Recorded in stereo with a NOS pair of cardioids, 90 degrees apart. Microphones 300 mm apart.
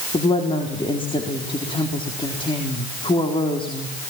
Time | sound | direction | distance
0.1 | a woman speaking | 20° left | 4 m